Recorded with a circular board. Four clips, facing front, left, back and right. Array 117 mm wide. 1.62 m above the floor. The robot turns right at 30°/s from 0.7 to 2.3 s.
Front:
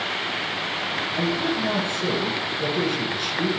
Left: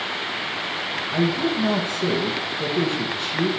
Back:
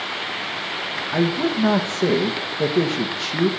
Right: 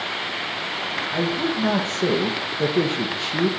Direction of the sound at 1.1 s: Straight behind.